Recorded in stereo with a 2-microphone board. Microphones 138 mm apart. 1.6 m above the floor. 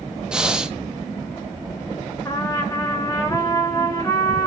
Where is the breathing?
5° right (ahead or behind), 0.9 m.